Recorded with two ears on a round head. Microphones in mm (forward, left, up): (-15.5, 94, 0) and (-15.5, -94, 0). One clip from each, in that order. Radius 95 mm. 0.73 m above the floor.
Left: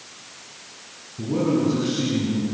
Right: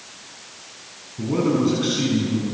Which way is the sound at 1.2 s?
65° right (ahead or behind).